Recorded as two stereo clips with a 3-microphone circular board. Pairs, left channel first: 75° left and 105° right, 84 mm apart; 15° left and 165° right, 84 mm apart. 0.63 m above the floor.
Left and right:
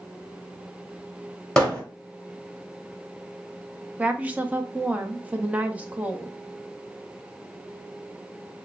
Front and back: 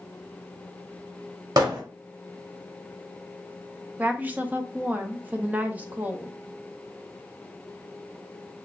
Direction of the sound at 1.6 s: 160° left.